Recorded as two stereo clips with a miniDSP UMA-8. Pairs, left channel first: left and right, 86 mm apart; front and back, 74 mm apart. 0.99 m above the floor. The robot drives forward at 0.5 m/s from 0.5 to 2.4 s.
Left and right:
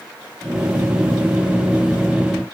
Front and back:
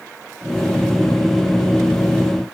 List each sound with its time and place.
Only background noise.